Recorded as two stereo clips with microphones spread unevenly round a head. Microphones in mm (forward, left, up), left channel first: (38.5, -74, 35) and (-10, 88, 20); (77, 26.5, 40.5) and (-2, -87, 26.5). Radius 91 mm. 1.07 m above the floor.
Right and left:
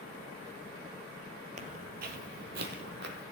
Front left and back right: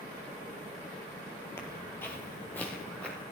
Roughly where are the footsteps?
Left.